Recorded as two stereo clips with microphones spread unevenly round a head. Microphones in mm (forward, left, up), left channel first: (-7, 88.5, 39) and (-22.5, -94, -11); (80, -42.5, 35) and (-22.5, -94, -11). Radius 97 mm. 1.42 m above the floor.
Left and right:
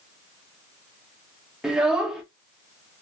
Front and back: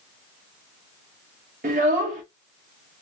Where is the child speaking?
165° left, 0.8 m.